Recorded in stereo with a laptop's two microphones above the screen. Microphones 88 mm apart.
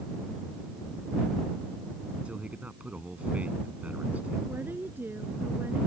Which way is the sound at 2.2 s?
15° right (ahead or behind).